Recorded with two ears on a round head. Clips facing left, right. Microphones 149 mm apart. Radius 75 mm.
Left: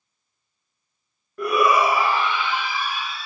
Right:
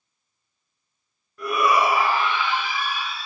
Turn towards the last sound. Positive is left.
turn(degrees=60)  # may be behind; listen again after turning